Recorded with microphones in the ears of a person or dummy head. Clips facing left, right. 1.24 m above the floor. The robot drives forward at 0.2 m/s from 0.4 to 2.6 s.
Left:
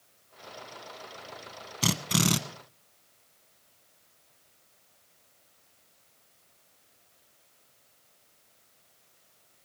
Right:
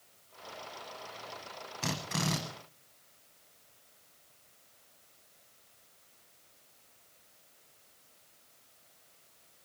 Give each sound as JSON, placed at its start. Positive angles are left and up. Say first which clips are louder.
{"t": 1.8, "sound": "a drill", "louder": "left 7 dB", "side_deg": 45, "distance_m": 0.9}